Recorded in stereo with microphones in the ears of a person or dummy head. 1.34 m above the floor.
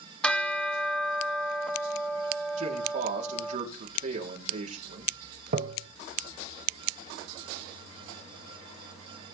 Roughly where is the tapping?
Right.